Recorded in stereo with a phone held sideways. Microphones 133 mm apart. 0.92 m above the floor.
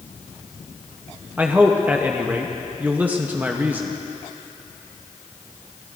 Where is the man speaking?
15° right (ahead or behind), 0.8 m.